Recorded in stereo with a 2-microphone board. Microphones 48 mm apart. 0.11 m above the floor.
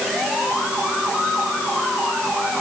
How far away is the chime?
No chime in this recording.